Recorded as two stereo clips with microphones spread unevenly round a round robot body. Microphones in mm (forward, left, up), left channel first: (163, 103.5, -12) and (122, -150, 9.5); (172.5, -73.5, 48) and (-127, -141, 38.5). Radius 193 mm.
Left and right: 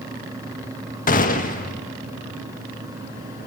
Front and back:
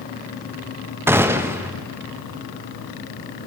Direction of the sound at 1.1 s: 115° left.